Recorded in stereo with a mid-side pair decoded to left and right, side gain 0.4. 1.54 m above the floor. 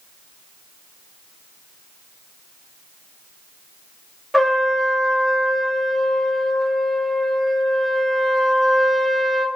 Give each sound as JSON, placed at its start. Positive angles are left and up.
{"t": 4.3, "sound": "a trumpet", "azimuth_deg": 5, "distance_m": 1.1}